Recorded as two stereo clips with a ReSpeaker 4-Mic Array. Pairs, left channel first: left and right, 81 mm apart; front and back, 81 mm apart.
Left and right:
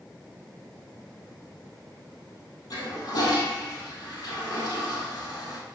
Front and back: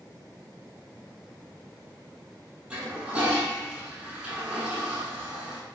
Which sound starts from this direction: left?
A toilet flushing, at 2.7 s.